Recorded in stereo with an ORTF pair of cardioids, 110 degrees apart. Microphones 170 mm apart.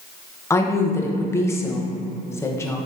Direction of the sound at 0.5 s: 15° left.